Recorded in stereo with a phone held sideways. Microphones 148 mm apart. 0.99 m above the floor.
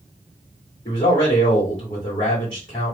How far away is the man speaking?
About 1.8 m.